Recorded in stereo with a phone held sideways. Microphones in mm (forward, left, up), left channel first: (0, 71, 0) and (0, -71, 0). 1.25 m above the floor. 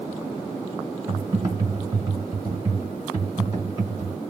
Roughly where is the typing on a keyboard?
Right.